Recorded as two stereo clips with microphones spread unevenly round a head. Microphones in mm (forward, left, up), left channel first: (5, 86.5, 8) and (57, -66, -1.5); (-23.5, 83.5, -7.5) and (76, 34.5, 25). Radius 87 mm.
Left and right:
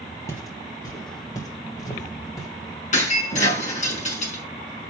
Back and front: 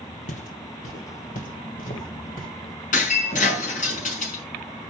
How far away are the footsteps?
About 2 m.